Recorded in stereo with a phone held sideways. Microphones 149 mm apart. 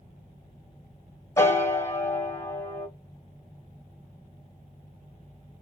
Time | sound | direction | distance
1.4 | a piano | 15° left (ahead or behind) | 0.9 m